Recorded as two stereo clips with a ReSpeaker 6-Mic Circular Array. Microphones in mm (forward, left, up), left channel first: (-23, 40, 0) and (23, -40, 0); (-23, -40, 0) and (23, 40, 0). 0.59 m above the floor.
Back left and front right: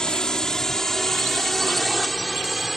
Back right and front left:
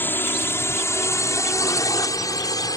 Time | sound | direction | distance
0.0 | a drone | 165° right | ?